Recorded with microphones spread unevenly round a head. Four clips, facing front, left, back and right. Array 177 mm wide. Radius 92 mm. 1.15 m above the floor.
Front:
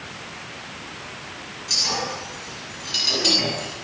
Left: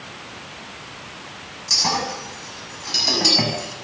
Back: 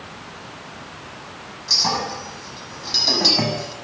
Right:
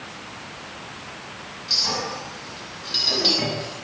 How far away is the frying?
I don't hear frying.